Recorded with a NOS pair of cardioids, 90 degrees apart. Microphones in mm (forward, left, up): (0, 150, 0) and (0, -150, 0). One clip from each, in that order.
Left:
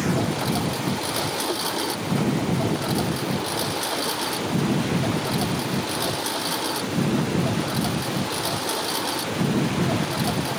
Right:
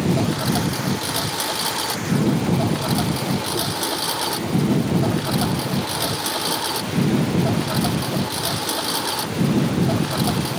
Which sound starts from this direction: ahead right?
A lawn mower, at 0.0 s.